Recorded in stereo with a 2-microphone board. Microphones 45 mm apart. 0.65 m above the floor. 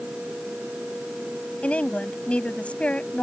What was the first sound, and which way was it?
A woman speaking, 30° left (ahead or behind).